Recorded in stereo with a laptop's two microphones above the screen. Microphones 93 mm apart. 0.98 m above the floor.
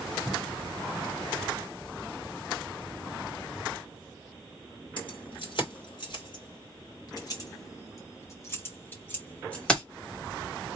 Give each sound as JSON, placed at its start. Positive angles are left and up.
{"t": 5.0, "sound": "keys jangling", "side_deg": 65, "distance_m": 3.0}